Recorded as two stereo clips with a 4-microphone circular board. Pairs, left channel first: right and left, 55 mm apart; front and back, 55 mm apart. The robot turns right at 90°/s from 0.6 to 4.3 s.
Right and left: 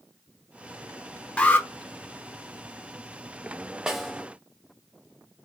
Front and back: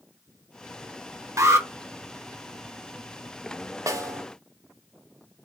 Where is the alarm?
160° right, 0.7 m; by 1.7 s 135° right, 0.7 m.